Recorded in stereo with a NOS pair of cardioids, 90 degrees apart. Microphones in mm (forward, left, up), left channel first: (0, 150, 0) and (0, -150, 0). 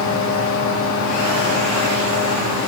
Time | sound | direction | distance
0.0 | a fan | 70° left | 4 m